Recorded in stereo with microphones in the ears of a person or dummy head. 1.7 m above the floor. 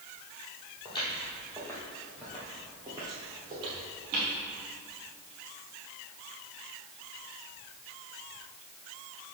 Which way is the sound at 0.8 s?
25° left (ahead or behind).